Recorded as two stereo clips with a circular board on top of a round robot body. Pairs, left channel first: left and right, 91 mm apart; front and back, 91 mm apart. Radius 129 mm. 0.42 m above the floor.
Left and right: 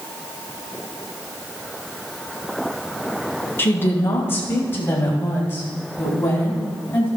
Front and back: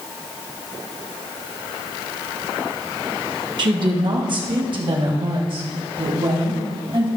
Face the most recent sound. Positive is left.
turn(degrees=155)